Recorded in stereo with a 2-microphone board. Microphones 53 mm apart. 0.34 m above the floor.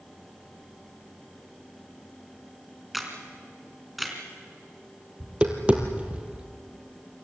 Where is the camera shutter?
Centre (ahead or behind), 3.5 m.